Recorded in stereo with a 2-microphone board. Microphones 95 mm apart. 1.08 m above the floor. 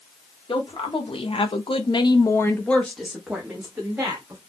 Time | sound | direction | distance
0.5 | a woman speaking | 70° left (ahead or behind) | 1.2 m